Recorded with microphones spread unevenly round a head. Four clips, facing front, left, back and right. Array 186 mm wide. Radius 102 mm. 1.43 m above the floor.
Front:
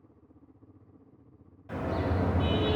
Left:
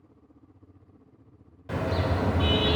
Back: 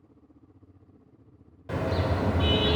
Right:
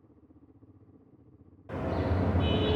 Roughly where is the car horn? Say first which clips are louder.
Left 3 dB, back 3 dB; behind left.